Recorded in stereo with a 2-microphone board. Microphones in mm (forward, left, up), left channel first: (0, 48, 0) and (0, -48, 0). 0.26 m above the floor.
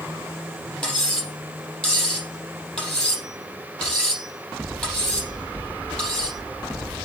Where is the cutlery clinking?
5° left (ahead or behind), 4.5 m.